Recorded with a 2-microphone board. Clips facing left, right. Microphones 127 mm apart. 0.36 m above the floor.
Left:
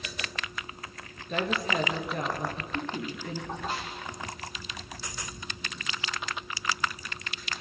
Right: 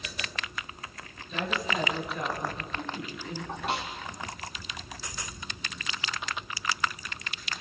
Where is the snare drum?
75° right (ahead or behind), 4 m.